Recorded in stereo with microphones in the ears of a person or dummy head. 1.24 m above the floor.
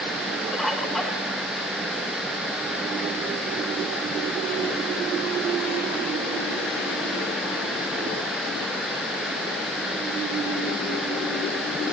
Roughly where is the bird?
Centre.